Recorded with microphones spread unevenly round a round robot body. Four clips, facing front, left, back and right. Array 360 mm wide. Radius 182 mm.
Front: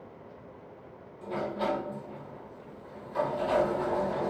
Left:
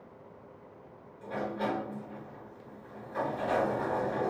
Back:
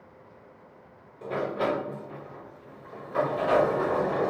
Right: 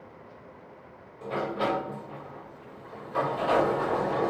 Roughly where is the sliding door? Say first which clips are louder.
Right 5 dB, back 3 dB; behind right.